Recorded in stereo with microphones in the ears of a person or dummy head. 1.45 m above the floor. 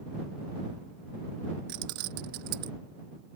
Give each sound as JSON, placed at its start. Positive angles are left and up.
{"t": 1.7, "sound": "keys jangling", "side_deg": -55}